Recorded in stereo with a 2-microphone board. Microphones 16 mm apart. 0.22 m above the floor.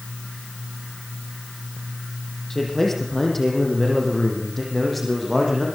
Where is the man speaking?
20° left (ahead or behind), 7 m; by 5.7 s centre (ahead or behind), 9 m.